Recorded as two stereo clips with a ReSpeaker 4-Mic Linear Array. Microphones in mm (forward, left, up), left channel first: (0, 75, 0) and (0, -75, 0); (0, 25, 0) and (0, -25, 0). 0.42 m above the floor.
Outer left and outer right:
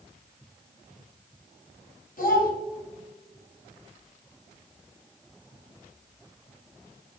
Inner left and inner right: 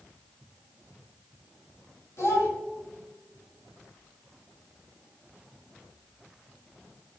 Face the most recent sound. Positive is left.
turn(degrees=70)  # may be behind; listen again after turning